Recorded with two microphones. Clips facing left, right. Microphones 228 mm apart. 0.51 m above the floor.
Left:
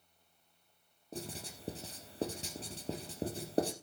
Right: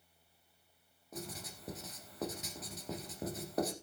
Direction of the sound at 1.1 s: 30° left (ahead or behind).